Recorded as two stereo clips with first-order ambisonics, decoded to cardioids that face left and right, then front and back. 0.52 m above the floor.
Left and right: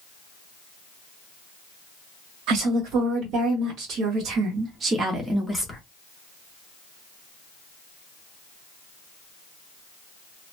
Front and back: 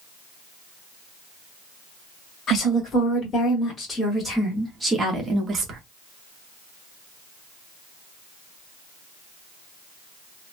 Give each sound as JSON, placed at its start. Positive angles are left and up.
{"t": 2.5, "sound": "a woman speaking", "azimuth_deg": -65, "distance_m": 1.6}